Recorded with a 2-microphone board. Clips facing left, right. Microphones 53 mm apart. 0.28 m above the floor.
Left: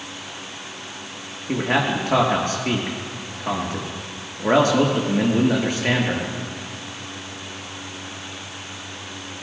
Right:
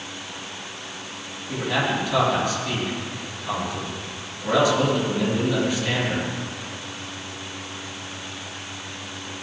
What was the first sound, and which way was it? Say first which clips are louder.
A man speaking: left 3 dB; 50° left (ahead or behind).